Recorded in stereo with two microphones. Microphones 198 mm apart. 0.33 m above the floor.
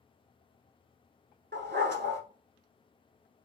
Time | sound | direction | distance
1.5 | a dog barking | 65° right (ahead or behind) | 0.9 m